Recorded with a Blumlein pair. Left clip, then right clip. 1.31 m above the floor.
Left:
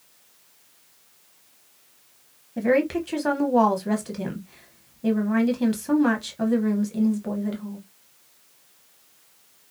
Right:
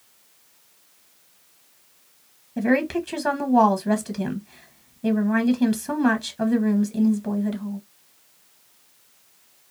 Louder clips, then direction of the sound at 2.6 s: Left 1 dB; straight ahead.